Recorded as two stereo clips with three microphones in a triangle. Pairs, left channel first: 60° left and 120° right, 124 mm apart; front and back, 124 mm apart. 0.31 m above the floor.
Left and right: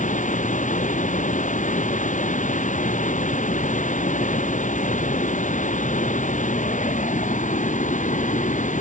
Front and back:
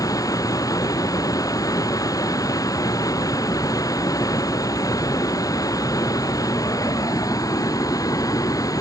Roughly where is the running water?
Ahead left.